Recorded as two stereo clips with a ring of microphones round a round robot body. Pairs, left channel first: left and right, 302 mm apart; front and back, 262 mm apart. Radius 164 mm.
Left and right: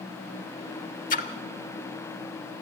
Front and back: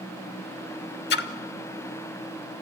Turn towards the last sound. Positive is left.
turn(degrees=35)